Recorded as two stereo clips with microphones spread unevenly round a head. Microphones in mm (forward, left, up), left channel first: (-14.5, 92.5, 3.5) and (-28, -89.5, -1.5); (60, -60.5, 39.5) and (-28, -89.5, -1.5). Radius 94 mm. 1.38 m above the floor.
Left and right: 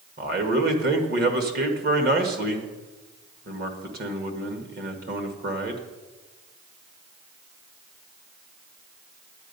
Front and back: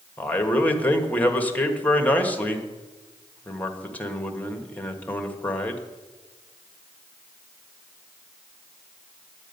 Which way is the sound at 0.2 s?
50° right.